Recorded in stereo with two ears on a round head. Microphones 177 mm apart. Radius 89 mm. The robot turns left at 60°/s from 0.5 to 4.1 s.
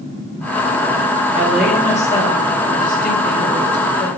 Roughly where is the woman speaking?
Behind.